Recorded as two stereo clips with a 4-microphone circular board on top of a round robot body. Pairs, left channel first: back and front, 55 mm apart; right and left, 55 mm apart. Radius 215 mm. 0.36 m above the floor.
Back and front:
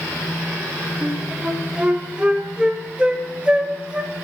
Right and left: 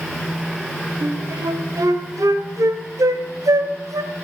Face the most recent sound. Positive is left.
turn(degrees=70)